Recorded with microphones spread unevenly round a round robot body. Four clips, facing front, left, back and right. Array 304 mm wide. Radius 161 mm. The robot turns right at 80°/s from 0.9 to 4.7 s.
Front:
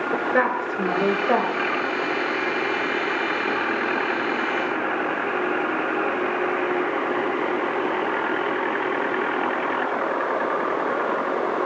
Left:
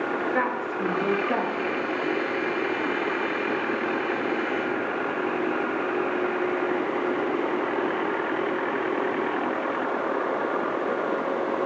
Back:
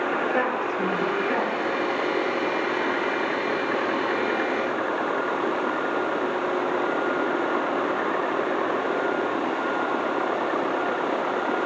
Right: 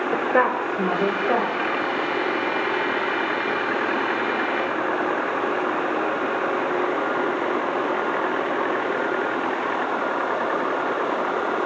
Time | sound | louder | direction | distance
0.1 | a woman speaking | right 8 dB, front 2 dB | 70° right | 3.5 m